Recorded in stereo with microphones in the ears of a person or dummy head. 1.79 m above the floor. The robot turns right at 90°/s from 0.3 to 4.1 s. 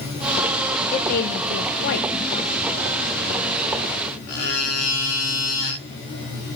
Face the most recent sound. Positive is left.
turn(degrees=-45)